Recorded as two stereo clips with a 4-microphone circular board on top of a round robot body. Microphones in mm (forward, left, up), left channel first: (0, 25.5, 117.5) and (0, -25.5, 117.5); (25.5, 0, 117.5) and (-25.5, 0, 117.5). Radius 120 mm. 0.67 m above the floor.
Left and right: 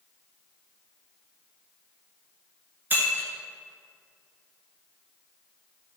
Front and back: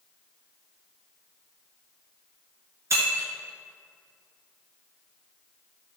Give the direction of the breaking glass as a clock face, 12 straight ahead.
5 o'clock.